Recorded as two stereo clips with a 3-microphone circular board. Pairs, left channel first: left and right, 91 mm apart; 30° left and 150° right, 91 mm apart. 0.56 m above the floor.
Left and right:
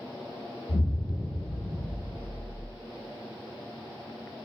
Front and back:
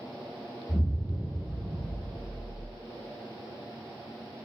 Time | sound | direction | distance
0.7 | an explosion | 120° left | 1.1 m